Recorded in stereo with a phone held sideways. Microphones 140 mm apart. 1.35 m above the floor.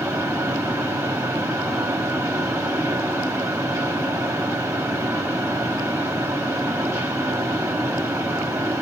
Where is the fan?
20° right (ahead or behind), 1.2 m.